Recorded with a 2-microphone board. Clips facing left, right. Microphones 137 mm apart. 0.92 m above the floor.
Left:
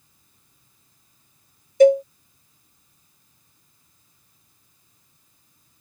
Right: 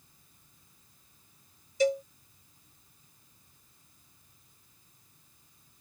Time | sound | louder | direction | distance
1.8 | a cowbell | left 13 dB | 60° left (ahead or behind) | ?